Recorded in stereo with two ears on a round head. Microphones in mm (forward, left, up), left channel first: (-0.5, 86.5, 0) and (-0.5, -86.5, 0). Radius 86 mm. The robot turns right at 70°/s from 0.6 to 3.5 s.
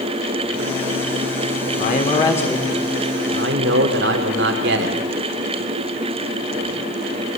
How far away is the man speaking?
About 2.5 m.